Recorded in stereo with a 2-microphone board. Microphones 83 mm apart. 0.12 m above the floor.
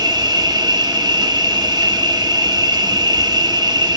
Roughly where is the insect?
Right.